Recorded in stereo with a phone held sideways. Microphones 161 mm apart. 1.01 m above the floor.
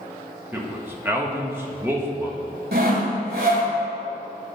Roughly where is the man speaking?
Centre.